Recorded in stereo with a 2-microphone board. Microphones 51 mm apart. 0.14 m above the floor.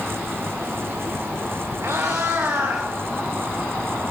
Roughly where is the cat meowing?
Right.